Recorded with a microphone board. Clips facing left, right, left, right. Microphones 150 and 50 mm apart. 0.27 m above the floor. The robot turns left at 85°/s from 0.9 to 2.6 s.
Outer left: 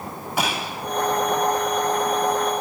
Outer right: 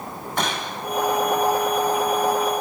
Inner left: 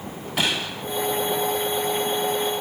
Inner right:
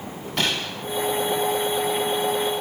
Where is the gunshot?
5° left (ahead or behind), 1.5 m.